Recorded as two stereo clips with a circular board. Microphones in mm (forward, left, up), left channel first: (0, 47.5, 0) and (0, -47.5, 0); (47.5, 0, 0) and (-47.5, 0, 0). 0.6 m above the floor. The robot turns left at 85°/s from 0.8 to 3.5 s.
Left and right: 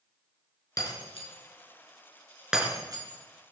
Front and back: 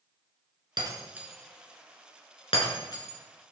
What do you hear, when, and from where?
0.8 s breaking glass: 140° left, 5 m; by 3.5 s 90° right, 5 m